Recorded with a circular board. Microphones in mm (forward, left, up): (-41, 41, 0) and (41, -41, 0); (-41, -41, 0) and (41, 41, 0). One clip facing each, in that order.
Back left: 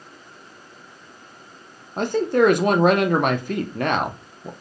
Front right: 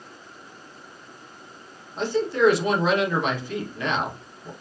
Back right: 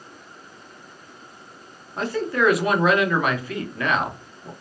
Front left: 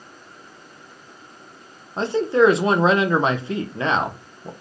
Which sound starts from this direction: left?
A man speaking, at 2.0 s.